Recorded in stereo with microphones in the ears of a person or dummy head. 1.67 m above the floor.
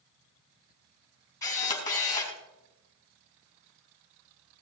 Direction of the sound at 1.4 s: 15° left (ahead or behind).